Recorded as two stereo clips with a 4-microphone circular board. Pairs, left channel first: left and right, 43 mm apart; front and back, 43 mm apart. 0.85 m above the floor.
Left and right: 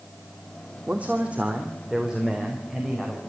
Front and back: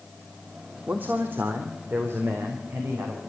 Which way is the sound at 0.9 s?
140° right.